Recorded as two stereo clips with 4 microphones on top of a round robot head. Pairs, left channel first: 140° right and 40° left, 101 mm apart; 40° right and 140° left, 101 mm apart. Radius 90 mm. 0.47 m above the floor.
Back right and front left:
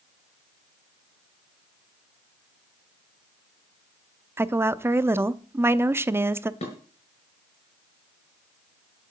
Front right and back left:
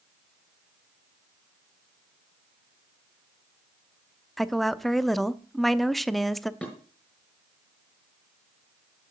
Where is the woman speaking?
45° left, 0.7 m.